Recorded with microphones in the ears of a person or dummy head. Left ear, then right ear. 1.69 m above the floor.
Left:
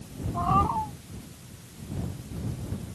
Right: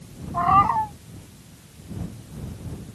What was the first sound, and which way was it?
A cat meowing, 70° right (ahead or behind).